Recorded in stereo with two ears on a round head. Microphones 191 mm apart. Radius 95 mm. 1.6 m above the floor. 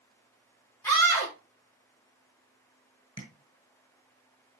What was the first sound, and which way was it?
A scream, 10° left (ahead or behind).